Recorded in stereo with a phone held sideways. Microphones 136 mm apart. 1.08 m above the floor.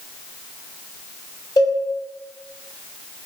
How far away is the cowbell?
About 0.9 m.